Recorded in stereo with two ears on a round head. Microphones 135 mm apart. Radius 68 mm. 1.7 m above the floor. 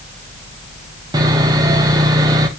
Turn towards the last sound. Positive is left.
turn(degrees=-25)  # may be behind; listen again after turning